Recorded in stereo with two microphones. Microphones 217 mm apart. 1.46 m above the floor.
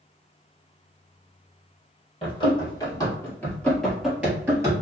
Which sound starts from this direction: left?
Running footsteps, at 2.2 s.